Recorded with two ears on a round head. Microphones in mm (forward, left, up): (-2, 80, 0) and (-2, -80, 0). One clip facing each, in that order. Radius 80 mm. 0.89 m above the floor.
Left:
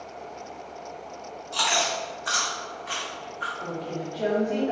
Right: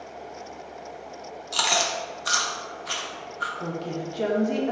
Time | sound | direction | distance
1.5 | chewing | 50° right (ahead or behind) | 0.6 m
3.6 | a woman speaking | 55° right (ahead or behind) | 0.9 m